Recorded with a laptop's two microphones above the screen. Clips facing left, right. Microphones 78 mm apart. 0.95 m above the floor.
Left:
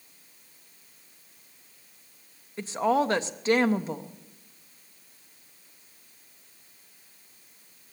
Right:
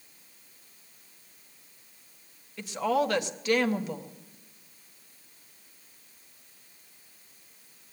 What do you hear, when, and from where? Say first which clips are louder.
2.6 s a woman speaking: left 2 dB; 30° left (ahead or behind), 0.7 m